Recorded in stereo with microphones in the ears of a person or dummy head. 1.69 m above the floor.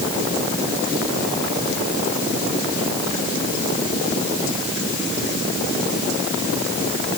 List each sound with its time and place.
Only background noise.